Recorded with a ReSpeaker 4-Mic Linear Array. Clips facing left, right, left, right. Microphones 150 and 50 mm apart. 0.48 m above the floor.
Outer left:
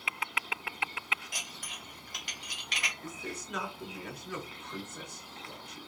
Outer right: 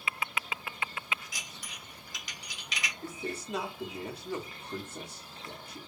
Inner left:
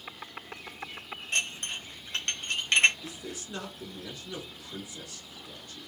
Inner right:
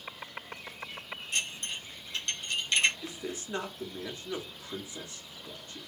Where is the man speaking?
30° right (ahead or behind), 1.4 m.